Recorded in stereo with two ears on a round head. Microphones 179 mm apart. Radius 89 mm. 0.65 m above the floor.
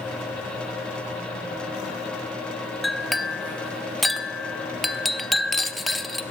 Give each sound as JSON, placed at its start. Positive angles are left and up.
{"t": 2.8, "sound": "a clink", "side_deg": 0, "distance_m": 0.7}